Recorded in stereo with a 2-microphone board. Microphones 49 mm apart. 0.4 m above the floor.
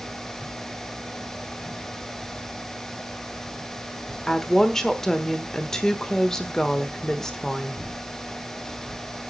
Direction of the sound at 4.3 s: 10° left (ahead or behind).